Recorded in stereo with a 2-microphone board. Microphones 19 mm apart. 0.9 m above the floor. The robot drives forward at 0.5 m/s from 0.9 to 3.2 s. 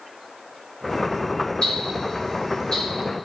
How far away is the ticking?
About 1.5 m.